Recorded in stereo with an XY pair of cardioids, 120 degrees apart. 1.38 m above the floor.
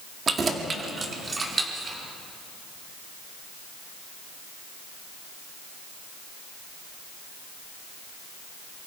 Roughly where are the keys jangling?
Ahead right.